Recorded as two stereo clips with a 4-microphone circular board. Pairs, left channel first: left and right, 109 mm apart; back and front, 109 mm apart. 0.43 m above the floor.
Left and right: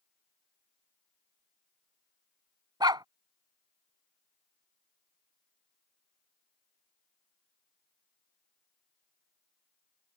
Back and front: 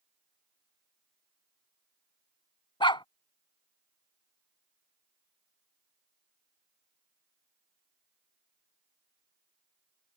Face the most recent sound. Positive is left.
turn(degrees=-140)